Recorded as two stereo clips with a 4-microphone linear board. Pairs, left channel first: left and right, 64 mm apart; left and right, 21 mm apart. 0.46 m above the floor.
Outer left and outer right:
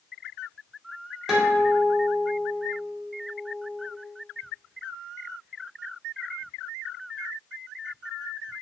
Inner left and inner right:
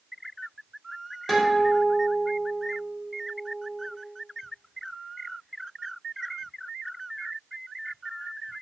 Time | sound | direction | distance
1.3 | a guitar | 10° right (ahead or behind) | 1.0 m